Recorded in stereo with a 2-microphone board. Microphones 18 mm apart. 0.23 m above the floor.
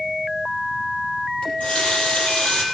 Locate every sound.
1.4 s a running tap: 80° left, 4 m